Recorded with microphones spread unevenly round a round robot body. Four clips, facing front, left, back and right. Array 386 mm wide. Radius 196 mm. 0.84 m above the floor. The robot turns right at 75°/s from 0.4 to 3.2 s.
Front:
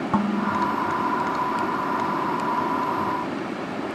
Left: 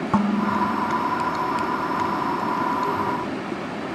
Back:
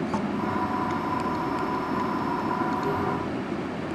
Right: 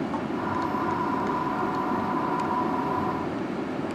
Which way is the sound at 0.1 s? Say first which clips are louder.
Left 7 dB, front 8 dB; 65° left.